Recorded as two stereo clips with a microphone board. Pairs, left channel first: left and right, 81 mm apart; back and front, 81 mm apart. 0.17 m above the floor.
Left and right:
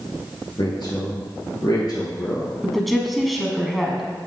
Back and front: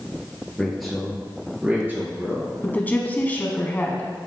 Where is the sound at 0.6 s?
95° left, 3.5 m; by 2.5 s 50° left, 3.5 m.